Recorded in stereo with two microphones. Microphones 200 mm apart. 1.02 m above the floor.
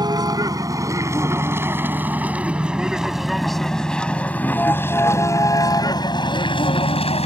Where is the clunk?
No clunk in this recording.